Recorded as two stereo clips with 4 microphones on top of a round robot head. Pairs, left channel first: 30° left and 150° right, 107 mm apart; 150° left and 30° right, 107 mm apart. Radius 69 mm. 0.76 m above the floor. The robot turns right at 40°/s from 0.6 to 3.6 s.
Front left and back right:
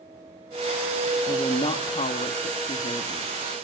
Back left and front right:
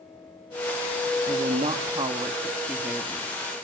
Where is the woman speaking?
20° right, 1.4 m; by 3.3 s 65° left, 1.4 m.